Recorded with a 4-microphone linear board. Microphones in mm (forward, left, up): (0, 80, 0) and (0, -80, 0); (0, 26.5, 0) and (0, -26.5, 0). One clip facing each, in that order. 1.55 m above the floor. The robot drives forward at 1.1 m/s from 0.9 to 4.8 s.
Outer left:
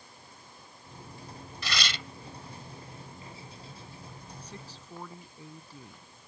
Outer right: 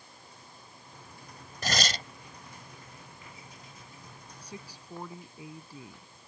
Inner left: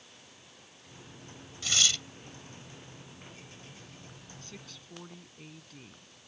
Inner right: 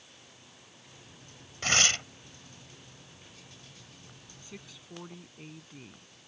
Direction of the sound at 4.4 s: 10° right (ahead or behind).